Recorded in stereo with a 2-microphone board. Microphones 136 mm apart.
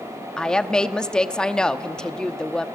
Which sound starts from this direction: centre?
A woman speaking, at 0.4 s.